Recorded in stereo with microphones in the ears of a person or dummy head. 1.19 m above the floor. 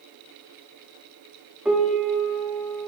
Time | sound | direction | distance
1.6 | a piano | centre (ahead or behind) | 1.0 m